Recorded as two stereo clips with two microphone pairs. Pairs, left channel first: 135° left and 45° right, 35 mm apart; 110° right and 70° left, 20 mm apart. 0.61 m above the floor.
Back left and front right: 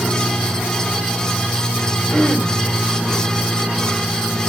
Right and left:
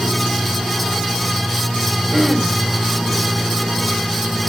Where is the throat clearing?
125° left, 2.5 m.